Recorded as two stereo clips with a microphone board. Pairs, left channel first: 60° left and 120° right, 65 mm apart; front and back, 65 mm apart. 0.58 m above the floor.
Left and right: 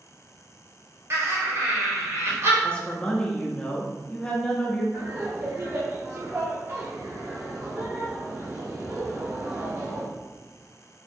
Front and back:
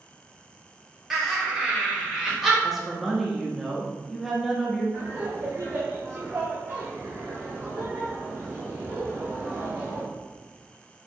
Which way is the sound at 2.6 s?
95° left.